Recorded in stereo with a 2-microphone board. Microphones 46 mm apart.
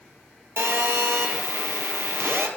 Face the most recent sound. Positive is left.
turn(degrees=-65)  # may be behind; listen again after turning